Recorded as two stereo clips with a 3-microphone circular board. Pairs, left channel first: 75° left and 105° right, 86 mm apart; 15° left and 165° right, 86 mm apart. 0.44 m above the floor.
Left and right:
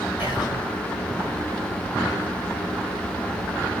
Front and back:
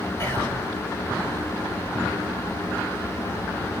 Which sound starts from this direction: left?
Whispering, at 0.2 s.